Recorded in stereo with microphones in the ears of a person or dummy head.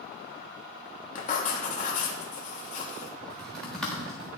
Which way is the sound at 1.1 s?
45° left (ahead or behind).